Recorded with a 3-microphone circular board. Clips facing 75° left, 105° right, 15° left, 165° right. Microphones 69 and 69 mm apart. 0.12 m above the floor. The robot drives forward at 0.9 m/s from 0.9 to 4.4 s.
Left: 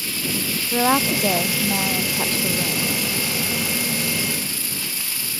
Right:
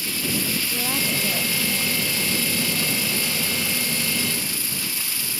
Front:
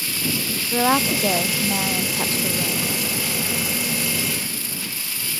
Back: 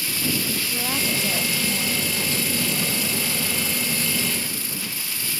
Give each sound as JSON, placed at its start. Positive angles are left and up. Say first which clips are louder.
{"t": 0.7, "sound": "a woman speaking", "louder": "left 13 dB, front 11 dB", "azimuth_deg": 50}